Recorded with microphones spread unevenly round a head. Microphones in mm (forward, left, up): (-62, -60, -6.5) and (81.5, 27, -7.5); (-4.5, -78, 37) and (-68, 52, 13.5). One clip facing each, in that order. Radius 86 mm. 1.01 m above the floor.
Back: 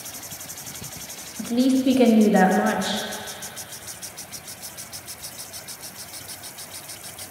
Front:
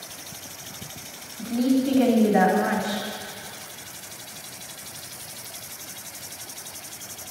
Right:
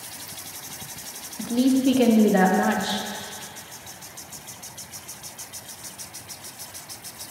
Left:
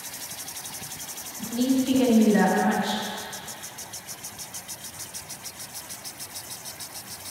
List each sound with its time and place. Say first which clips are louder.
1.4 s a woman speaking: back 2 dB, right 4 dB; 100° right, 0.8 m